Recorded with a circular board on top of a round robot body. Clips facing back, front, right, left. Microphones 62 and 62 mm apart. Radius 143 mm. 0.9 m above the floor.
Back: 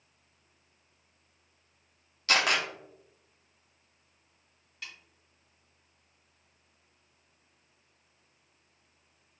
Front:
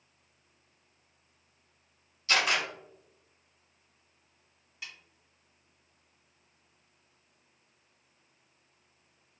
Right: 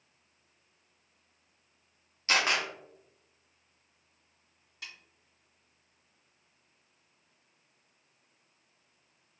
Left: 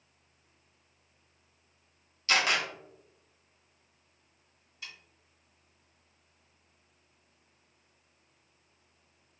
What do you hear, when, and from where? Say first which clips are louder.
2.3 s a camera shutter: back 1 dB, even; 150° right, 0.6 m
4.8 s a snare drum: even, even; 80° right, 1.9 m